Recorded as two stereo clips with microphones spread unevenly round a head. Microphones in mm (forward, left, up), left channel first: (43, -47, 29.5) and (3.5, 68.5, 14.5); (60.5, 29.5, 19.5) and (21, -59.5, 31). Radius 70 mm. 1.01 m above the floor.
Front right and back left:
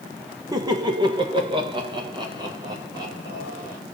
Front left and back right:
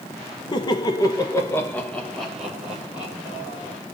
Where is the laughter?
65° left, 1.1 m; by 3.8 s 175° left, 1.9 m.